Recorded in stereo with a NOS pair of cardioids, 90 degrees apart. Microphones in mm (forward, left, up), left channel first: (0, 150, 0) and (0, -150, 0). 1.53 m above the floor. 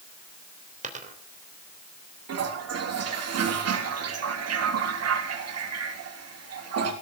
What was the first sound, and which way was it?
A dropped coin, 25° right.